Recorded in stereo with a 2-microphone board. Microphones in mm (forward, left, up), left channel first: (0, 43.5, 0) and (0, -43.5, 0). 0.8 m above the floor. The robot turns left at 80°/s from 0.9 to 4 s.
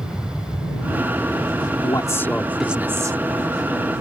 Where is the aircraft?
10° right; by 4.0 s 105° left.